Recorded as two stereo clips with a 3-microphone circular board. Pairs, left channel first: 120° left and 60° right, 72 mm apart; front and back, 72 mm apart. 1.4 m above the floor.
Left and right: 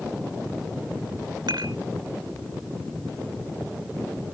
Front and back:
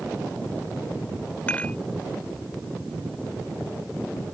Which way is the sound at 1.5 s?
70° right.